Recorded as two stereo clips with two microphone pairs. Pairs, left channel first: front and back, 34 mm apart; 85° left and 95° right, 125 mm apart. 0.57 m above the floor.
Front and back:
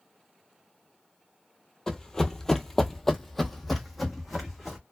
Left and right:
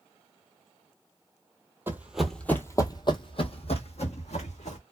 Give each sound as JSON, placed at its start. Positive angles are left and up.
{"t": 1.9, "sound": "running footsteps", "azimuth_deg": -50, "distance_m": 0.6}